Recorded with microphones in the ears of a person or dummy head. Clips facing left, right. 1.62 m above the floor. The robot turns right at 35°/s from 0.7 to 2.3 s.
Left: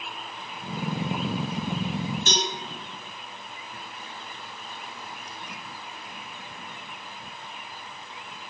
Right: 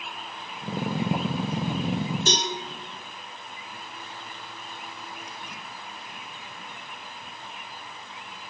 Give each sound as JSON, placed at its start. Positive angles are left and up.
{"t": 2.3, "sound": "a cowbell", "side_deg": -30, "distance_m": 0.8}